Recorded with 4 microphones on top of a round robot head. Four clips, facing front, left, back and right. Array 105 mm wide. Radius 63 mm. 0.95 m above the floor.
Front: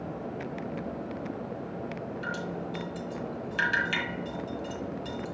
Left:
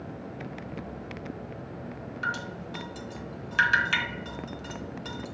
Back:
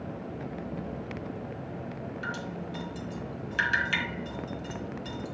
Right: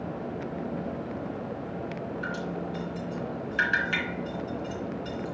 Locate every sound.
2.2 s dripping: 85° left, 3 m